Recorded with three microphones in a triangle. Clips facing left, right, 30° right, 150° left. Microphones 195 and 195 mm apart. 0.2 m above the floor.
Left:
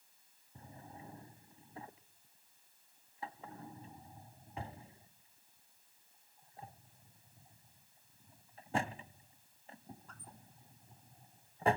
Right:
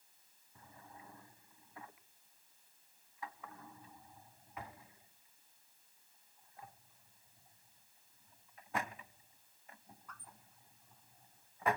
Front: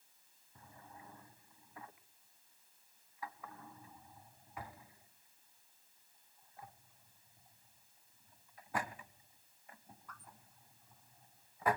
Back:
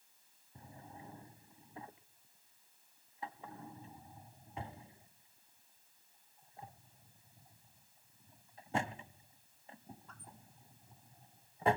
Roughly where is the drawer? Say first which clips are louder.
Left 5 dB, back 4 dB; behind left.